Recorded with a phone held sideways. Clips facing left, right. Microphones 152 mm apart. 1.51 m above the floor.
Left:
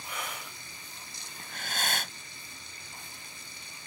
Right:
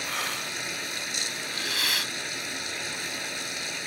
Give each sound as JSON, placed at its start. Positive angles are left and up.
{"t": 0.0, "sound": "running water", "side_deg": -85}
{"t": 1.4, "sound": "breathing", "side_deg": 50}